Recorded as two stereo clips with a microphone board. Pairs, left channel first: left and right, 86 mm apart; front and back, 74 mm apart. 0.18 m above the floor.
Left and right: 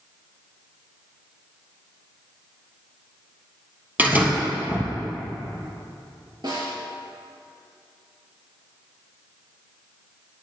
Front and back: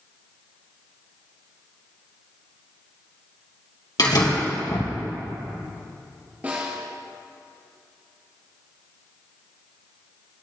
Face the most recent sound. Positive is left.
turn(degrees=-120)